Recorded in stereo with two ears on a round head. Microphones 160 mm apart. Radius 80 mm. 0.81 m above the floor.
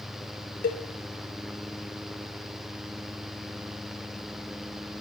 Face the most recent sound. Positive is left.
turn(degrees=55)  # may be behind; listen again after turning